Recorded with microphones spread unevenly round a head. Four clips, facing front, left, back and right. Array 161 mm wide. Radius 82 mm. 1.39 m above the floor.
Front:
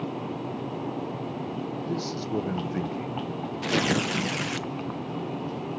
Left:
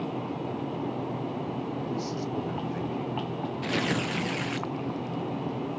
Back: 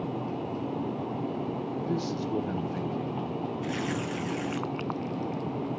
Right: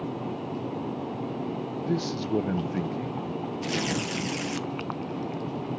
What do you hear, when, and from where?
1.9 s a man speaking: 80° right, 1.1 m; by 3.2 s 35° right, 0.9 m
3.6 s tearing paper: straight ahead, 1.0 m